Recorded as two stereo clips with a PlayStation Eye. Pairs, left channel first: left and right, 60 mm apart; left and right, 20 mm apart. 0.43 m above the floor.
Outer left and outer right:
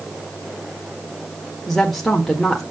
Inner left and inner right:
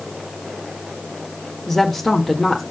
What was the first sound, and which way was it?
A woman speaking, 5° left (ahead or behind).